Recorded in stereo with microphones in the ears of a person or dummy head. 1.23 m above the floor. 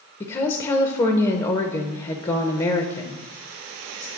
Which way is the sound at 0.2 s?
20° left (ahead or behind).